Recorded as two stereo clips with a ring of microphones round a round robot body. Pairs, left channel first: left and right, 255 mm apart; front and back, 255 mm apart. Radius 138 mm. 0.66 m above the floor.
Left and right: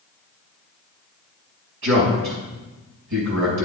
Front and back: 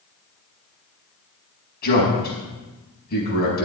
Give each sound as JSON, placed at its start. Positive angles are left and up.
{"t": 1.8, "sound": "a man speaking", "azimuth_deg": -55, "distance_m": 5.0}